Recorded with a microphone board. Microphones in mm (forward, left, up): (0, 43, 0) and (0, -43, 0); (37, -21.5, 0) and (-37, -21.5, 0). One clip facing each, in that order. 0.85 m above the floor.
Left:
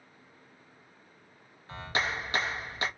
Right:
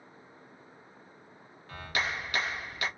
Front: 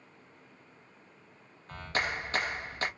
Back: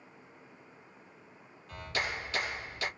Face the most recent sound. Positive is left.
turn(degrees=35)